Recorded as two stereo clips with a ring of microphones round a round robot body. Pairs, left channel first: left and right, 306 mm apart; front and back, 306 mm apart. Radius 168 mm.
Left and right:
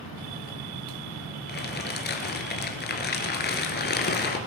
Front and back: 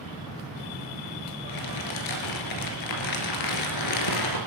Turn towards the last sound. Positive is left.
turn(degrees=30)